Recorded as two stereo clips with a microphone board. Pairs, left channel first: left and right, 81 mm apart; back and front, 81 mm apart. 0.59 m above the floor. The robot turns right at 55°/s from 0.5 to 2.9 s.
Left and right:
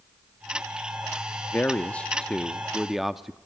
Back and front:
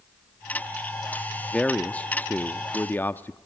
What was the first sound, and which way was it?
A man speaking, 115° left.